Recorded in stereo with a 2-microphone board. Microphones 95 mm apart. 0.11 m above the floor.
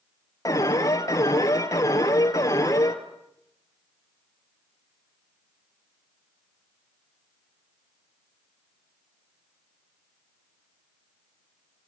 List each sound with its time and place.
0.5 s an alarm: 35° left (ahead or behind), 1.6 m